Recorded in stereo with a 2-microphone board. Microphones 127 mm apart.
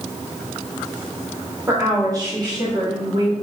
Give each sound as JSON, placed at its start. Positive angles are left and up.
{"t": 1.7, "sound": "a woman speaking", "side_deg": -20, "distance_m": 1.7}